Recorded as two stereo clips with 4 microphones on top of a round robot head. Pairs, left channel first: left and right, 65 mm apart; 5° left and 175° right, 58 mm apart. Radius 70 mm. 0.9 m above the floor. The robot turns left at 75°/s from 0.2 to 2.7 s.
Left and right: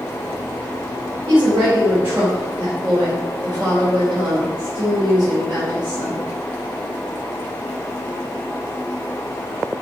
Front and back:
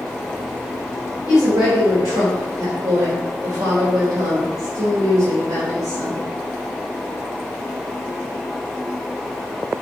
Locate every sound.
1.3 s a woman speaking: 95° right, 3 m; by 6.2 s 155° left, 3 m